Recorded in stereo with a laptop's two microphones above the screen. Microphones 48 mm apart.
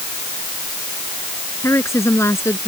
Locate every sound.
1.6 s a woman speaking: 75° left (ahead or behind)